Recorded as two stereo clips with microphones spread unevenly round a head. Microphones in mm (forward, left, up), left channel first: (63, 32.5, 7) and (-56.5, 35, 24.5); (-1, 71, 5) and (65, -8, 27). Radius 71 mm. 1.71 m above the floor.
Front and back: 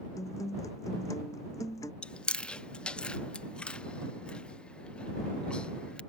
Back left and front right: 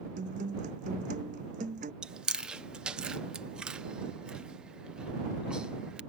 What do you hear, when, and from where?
0.2 s a guitar: 70° right
2.0 s chewing: 95° right